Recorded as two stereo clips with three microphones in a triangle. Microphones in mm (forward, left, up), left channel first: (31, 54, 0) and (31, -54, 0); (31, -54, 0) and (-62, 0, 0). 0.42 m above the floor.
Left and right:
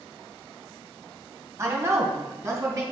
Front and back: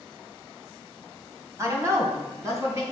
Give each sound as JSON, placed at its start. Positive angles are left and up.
{"t": 1.6, "sound": "a woman speaking", "azimuth_deg": -150, "distance_m": 2.0}